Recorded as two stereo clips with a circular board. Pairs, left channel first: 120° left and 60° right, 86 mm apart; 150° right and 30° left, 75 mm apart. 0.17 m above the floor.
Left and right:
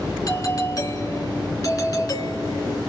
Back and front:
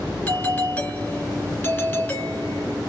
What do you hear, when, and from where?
0.3 s a doorbell: 150° left, 2 m